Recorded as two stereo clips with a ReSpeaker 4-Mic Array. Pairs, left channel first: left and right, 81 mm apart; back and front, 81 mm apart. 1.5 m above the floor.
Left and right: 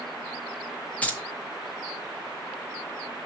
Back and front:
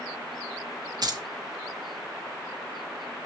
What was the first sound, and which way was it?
Keys jangling, 20° left.